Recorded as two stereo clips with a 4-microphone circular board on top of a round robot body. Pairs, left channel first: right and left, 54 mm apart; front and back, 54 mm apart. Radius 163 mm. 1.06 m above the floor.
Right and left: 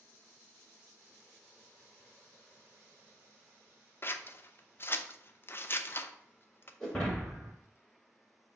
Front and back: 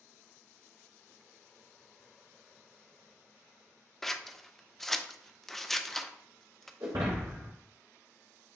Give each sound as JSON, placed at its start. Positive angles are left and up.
{"t": 4.0, "sound": "scissors", "azimuth_deg": -85, "distance_m": 0.6}
{"t": 6.8, "sound": "breaking glass", "azimuth_deg": -170, "distance_m": 1.1}